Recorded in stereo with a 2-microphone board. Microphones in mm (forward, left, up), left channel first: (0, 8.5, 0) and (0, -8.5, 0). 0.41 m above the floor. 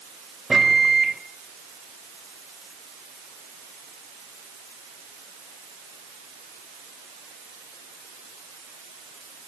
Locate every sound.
0.5 s a microwave: 10° right (ahead or behind), 1.3 m